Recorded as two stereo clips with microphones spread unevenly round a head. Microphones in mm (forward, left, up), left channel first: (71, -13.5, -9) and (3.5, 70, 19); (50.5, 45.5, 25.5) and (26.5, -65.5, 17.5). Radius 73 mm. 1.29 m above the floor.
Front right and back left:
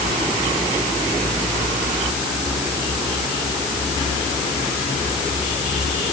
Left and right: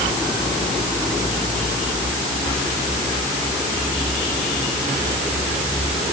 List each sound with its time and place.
Only background noise.